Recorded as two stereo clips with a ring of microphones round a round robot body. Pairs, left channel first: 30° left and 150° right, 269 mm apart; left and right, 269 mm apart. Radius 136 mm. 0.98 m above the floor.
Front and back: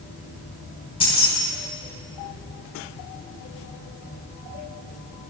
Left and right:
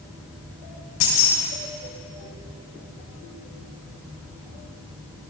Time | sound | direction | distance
1.0 | keys jangling | 100° left | 4 m